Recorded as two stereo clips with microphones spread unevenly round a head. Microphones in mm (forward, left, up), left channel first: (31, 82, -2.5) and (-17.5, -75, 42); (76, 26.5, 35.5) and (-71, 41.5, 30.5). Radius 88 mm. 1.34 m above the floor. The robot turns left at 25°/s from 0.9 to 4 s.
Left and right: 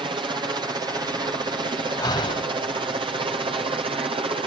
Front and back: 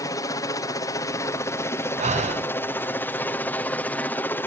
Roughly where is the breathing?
Behind left.